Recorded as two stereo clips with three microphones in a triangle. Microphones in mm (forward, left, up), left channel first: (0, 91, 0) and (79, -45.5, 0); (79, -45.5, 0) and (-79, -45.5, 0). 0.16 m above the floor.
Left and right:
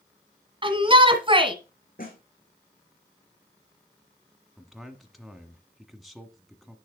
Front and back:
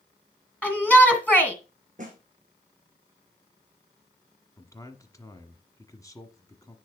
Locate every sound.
0.6 s a shout: 75° right, 1.7 m
2.0 s a snare drum: 140° left, 3 m
4.6 s a man speaking: 30° left, 1.4 m